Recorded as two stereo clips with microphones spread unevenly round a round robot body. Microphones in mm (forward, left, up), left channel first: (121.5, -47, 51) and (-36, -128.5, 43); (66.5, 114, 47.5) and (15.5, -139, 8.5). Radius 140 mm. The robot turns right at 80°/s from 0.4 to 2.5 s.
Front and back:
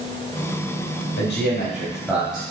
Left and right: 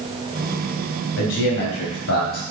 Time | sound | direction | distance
1.2 | a man speaking | 45° left | 3.5 m